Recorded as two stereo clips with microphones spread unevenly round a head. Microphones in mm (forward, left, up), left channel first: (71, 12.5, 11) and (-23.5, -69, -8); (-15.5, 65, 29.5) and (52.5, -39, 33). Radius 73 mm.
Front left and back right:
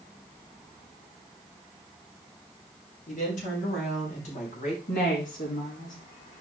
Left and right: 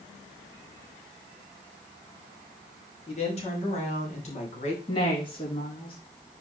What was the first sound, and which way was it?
A woman speaking, 85° left.